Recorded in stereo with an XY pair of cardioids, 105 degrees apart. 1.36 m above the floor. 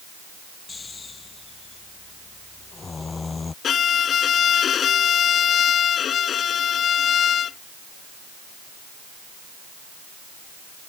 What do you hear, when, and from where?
0.7 s snoring: 30° left
3.6 s a violin: 55° left